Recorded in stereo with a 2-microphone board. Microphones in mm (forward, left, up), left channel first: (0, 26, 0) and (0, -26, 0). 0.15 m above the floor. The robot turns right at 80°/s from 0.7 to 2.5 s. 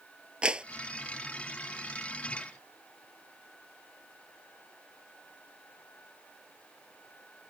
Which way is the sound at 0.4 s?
20° right (ahead or behind).